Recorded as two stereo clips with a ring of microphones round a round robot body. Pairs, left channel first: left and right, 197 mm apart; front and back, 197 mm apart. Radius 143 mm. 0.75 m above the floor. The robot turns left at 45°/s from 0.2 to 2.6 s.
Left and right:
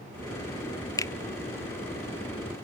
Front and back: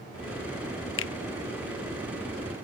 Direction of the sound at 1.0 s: 15° left.